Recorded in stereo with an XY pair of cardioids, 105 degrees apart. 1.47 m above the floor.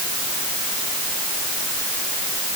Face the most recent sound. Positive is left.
No sound to turn to.